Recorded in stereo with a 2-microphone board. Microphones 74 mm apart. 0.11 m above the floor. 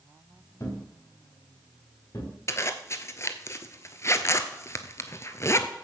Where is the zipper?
40° left (ahead or behind), 0.9 m.